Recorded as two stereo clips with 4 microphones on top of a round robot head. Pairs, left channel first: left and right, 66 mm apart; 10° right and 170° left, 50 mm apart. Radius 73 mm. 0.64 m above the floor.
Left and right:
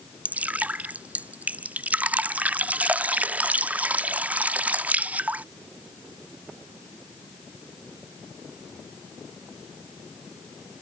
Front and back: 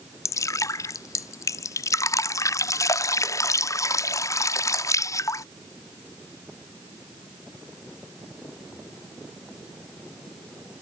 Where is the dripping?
20° right.